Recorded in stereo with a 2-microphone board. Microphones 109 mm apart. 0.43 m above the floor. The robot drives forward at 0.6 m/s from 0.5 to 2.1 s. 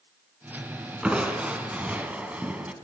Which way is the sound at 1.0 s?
10° right (ahead or behind).